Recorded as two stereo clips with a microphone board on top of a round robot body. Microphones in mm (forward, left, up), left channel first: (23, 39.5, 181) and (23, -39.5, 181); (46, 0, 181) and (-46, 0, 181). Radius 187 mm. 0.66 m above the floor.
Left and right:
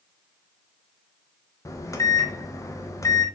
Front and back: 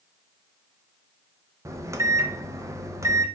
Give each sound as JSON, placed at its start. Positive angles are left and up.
{"t": 1.6, "sound": "a microwave", "azimuth_deg": 130, "distance_m": 0.6}